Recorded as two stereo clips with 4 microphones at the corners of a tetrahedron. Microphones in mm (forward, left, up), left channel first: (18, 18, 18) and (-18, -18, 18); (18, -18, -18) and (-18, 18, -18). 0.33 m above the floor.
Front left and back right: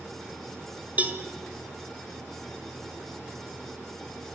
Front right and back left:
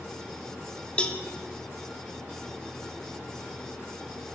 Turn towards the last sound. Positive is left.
turn(degrees=-100)